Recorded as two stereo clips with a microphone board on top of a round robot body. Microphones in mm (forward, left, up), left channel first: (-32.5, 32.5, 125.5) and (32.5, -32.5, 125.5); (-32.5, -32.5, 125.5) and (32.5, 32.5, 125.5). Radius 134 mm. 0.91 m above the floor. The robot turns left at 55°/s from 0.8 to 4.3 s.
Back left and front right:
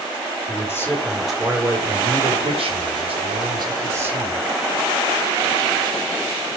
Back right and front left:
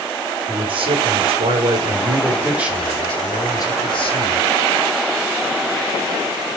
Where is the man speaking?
70° left, 4.5 m; by 4.4 s 120° right, 4.5 m.